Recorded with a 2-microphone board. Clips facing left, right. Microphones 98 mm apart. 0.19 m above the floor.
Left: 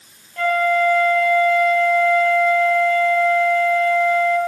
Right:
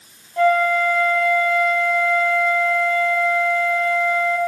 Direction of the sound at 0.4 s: 20° right (ahead or behind).